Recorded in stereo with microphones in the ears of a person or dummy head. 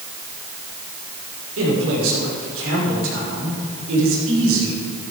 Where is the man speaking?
70° right (ahead or behind), 5.5 m.